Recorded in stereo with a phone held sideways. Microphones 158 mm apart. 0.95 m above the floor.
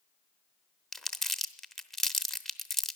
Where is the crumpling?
Centre (ahead or behind), 0.8 m.